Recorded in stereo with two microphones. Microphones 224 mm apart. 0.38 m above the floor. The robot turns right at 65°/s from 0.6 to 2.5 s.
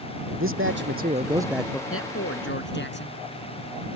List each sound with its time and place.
0.3 s a man speaking: 65° right; by 1.8 s 10° left
1.9 s a man speaking: 85° left; by 3.2 s 125° left